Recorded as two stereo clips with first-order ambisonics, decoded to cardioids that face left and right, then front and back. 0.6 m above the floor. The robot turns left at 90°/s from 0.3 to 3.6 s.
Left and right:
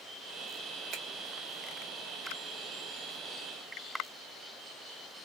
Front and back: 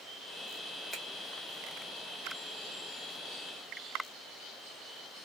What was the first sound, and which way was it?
A finger snap, 95° right.